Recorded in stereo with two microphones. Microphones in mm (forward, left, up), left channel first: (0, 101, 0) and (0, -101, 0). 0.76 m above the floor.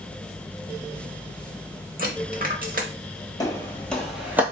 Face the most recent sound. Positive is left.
turn(degrees=-10)  # may be behind; listen again after turning